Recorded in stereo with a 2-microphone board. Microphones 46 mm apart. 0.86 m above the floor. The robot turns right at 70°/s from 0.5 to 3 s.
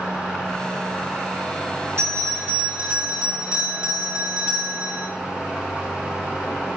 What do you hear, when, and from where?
2.0 s a bell: 85° right, 3 m; by 5.1 s 10° right, 3 m